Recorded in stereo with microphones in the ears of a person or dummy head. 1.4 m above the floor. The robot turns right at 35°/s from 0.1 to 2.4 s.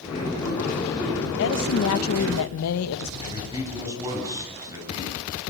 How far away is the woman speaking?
About 1.5 m.